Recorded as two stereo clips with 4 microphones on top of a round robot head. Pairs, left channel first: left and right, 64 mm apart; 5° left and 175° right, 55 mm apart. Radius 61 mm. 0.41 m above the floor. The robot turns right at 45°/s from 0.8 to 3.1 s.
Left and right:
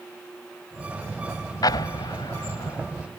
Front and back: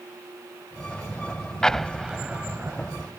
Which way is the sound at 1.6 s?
80° left.